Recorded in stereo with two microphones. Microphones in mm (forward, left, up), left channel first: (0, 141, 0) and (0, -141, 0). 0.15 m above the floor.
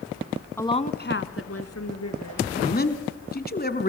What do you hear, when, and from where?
0.6 s a woman speaking: 10° left (ahead or behind), 1.1 m; by 2.5 s 70° left (ahead or behind), 3 m
2.5 s a man speaking: 35° left (ahead or behind), 1.6 m